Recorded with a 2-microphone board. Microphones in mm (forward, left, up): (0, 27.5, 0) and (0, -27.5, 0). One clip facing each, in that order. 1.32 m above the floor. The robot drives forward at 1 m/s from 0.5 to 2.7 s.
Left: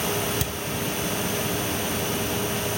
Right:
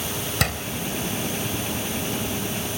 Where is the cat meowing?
No cat meowing in this recording.